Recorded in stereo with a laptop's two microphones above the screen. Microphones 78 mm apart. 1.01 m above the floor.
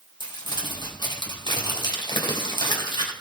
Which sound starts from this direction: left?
Crumpling, at 0.2 s.